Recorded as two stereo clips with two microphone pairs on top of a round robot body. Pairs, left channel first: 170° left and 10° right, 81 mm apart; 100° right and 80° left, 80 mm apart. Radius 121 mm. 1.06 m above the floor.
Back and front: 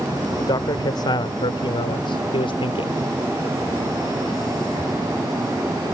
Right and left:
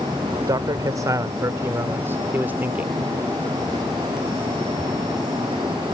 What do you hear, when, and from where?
0.4 s a man speaking: 125° left; by 2.9 s 150° left